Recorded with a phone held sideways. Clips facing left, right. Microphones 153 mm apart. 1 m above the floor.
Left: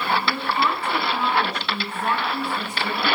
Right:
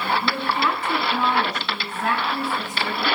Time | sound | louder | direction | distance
0.2 | a woman speaking | even | 85° right | 7 m